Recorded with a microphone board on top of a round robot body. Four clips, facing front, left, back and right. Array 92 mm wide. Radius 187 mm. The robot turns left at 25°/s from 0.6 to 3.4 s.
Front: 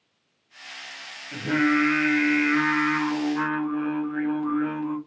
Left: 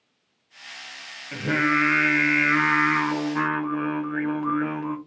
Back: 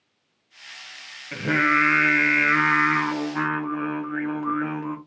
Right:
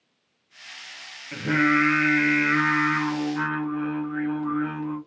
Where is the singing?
175° right, 1.1 m; by 5.0 s 130° left, 1.1 m.